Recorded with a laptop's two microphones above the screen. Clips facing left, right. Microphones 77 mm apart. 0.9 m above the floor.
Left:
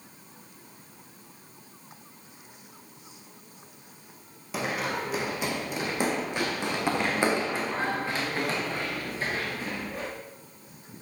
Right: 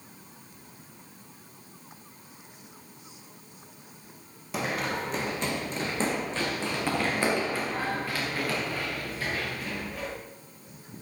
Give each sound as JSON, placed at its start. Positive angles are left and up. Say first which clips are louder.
{"t": 4.5, "sound": "running footsteps", "louder": "even", "side_deg": 0, "distance_m": 2.0}